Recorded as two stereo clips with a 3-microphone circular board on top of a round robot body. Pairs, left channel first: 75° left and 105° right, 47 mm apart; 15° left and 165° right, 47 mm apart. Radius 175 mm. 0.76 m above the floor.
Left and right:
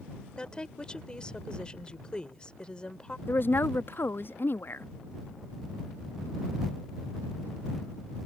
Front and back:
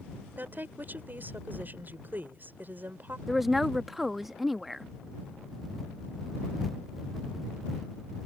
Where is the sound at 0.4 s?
145° left.